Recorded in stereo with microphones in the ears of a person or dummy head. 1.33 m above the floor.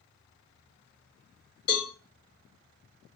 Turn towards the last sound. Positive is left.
turn(degrees=75)  # may be behind; listen again after turning